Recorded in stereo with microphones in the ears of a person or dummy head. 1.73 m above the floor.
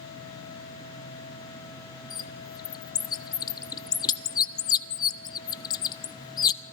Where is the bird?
25° left (ahead or behind), 1.0 m.